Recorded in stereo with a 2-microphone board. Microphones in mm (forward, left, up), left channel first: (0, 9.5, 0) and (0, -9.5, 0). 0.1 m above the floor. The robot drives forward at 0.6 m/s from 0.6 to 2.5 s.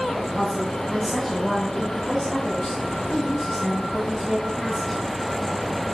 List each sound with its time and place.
0.3 s a woman speaking: 5° right (ahead or behind), 4 m